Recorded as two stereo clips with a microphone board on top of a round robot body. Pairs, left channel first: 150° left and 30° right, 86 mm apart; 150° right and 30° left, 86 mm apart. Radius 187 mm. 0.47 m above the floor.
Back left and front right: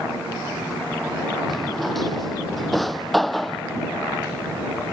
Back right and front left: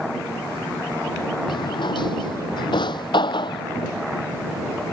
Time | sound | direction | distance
1.5 | a drawer | 120° right | ?